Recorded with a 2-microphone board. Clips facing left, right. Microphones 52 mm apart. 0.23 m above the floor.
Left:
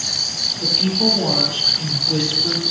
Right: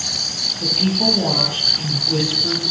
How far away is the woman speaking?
About 6 m.